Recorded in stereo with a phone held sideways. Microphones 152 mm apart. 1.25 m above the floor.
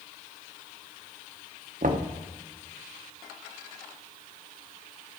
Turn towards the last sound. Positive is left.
turn(degrees=-60)  # may be behind; listen again after turning